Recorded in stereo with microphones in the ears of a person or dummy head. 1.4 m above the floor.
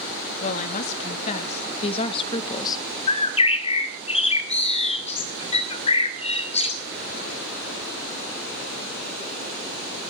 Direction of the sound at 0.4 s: 45° left (ahead or behind).